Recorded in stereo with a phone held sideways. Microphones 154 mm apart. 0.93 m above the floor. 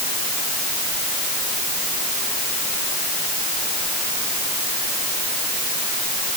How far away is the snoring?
No snoring in this recording.